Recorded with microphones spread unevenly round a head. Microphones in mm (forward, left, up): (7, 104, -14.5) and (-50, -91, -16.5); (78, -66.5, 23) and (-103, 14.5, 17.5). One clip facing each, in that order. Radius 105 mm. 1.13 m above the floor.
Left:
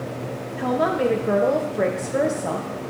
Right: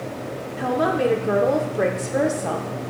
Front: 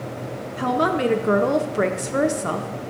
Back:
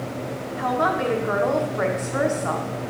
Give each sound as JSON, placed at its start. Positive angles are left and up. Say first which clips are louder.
{"t": 0.6, "sound": "a woman speaking", "louder": "even, front 3 dB", "azimuth_deg": -15, "distance_m": 0.6}